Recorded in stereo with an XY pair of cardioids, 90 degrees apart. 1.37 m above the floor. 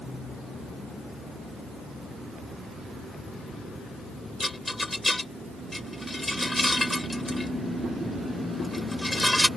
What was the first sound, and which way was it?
A rattle, 10° left.